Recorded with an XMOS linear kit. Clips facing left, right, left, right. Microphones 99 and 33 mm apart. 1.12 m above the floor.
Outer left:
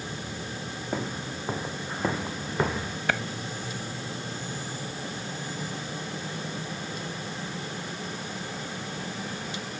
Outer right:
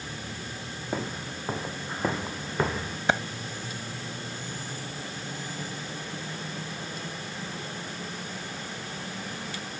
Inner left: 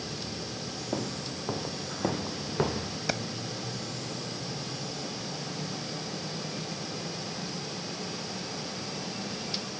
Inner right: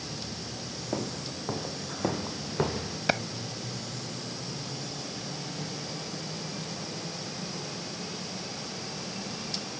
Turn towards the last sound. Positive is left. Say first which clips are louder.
# outer right 3 dB, inner right 5 dB
turn(degrees=-20)  # may be behind; listen again after turning